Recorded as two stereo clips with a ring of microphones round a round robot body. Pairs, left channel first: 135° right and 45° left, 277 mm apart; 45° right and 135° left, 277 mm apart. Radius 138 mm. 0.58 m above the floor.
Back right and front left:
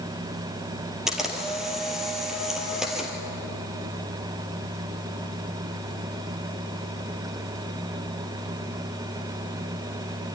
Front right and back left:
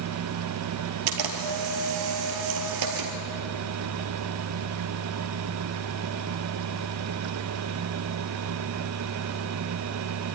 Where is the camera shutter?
135° left, 2.5 m.